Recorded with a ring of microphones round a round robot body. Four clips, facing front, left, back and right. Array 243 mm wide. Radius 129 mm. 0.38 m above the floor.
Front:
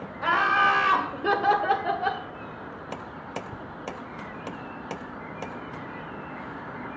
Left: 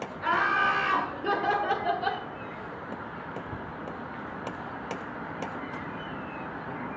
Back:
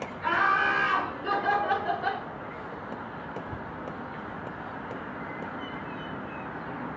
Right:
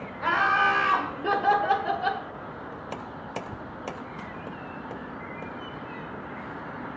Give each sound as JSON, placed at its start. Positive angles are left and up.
{"t": 0.2, "sound": "laughter", "azimuth_deg": -5, "distance_m": 2.5}